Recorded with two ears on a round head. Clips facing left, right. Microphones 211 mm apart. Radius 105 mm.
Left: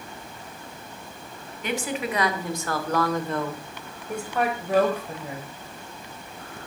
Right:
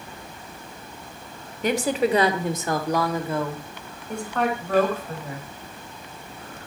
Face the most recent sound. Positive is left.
turn(degrees=15)  # may be behind; listen again after turning